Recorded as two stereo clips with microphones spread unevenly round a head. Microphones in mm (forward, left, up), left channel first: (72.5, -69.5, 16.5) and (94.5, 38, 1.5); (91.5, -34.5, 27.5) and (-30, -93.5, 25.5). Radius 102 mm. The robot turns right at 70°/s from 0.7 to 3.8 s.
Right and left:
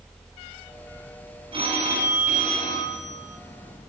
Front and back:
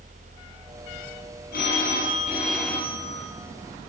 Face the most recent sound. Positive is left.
turn(degrees=-165)